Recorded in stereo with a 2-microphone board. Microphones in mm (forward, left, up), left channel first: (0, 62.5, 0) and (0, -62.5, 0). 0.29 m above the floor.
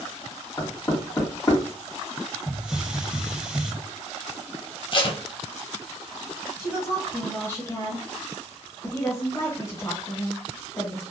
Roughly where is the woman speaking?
Left.